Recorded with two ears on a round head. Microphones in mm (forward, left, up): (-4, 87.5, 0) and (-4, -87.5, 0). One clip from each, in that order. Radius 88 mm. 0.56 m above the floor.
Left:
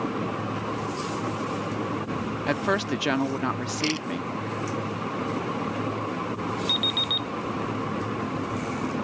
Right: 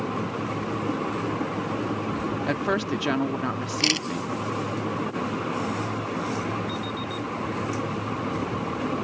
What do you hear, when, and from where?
2.5 s a woman speaking: 15° left (ahead or behind)
3.8 s a camera shutter: 30° right (ahead or behind)
6.7 s an alarm clock: 85° left